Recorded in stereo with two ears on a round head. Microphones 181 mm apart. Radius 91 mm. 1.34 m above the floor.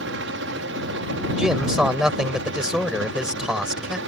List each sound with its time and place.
0.0 s a helicopter: 60° right (ahead or behind); by 4.1 s 65° right (ahead or behind)
1.4 s a man speaking: 5° right (ahead or behind)